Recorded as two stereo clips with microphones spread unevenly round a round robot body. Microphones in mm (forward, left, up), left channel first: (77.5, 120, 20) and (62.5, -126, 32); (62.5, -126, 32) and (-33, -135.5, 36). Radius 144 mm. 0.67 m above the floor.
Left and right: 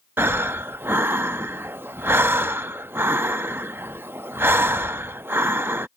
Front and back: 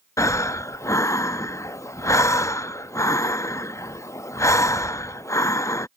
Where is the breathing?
15° right.